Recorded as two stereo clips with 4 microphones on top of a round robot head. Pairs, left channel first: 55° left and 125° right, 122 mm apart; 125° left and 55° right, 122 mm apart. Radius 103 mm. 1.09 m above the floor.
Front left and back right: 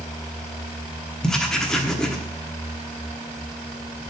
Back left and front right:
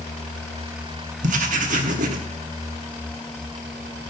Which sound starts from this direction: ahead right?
Writing, at 1.2 s.